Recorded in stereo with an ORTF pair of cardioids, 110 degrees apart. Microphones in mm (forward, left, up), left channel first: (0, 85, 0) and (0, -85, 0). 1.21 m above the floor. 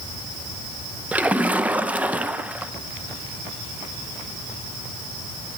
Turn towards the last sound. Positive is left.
turn(degrees=-10)